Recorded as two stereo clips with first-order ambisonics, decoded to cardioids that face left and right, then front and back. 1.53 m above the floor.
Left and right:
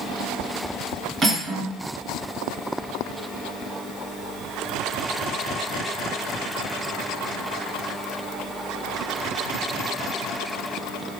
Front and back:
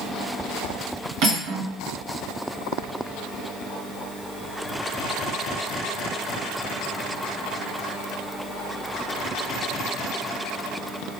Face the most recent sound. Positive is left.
turn(degrees=-165)